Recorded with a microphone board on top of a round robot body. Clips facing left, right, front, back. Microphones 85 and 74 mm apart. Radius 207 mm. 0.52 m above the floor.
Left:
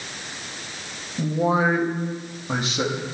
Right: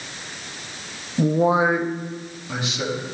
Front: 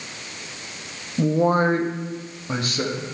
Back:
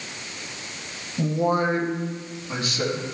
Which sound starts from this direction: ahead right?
A man speaking, at 1.2 s.